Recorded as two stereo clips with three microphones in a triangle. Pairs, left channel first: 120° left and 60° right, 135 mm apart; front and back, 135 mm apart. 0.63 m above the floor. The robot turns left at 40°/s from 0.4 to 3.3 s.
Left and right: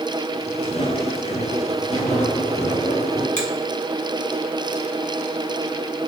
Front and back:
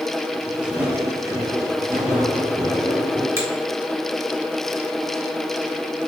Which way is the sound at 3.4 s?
115° left.